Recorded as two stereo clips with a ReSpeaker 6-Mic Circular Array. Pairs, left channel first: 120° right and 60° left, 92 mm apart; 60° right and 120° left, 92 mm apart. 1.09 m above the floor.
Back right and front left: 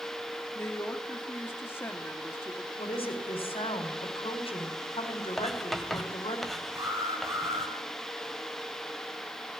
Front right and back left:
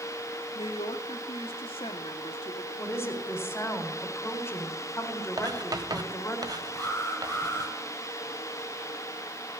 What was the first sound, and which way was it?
A woman speaking, 55° right.